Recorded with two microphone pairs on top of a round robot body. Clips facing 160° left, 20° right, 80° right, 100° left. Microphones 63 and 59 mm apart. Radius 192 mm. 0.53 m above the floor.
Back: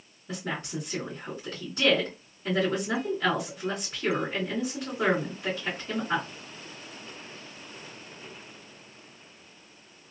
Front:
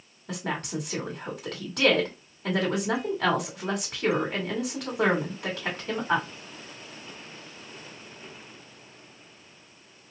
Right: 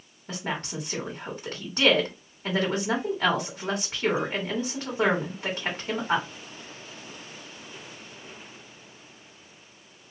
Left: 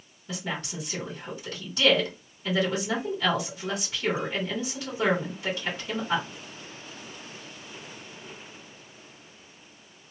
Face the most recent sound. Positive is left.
turn(degrees=-40)